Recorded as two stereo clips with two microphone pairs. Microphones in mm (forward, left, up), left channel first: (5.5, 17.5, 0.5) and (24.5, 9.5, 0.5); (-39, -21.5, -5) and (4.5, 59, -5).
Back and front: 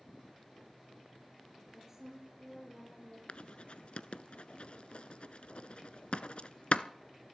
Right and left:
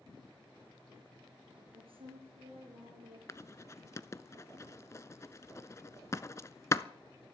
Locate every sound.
1.7 s a woman speaking: 45° left, 4 m; by 3.2 s 55° left, 5.5 m
3.3 s writing: straight behind, 0.5 m